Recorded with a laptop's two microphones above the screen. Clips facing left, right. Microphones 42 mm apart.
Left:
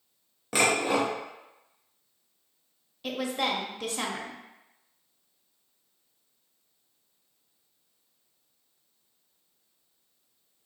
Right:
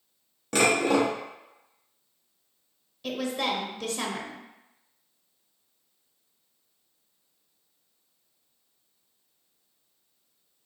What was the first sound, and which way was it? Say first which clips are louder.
Dishes clattering: right 2 dB; 5° left (ahead or behind).